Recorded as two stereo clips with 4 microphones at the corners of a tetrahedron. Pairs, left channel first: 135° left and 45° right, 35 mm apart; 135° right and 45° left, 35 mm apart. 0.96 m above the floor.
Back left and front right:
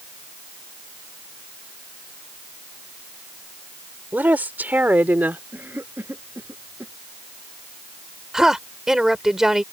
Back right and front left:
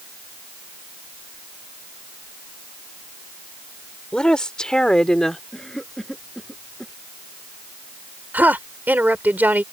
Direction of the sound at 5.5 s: 55° right.